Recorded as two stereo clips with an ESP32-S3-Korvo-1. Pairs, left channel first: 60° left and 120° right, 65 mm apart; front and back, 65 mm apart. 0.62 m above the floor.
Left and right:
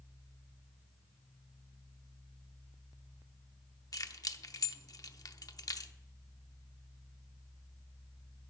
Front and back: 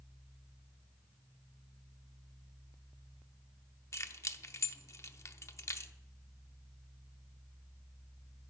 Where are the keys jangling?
40° left, 0.7 m.